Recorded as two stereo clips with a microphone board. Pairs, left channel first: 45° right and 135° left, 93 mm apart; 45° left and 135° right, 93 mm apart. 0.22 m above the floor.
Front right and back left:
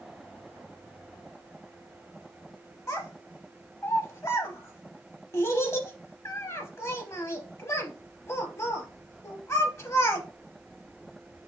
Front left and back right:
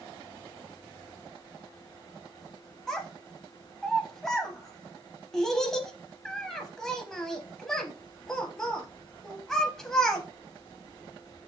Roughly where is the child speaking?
Ahead right.